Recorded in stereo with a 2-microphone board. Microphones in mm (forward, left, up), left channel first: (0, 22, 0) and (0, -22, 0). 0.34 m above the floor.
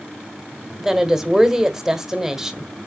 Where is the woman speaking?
15° right (ahead or behind), 1.3 m.